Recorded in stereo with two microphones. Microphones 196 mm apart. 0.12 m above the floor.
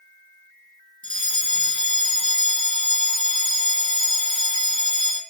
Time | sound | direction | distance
1.0 | a fire alarm | 25° left (ahead or behind) | 2.5 m